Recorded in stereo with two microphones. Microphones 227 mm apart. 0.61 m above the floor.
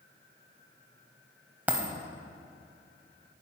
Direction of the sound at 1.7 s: 5° right (ahead or behind).